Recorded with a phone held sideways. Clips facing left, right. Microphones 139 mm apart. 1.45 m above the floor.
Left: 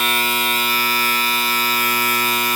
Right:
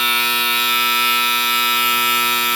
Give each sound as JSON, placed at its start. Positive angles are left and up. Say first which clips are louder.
{"t": 0.0, "sound": "a machine running", "louder": "left 2 dB", "side_deg": 45, "distance_m": 0.9}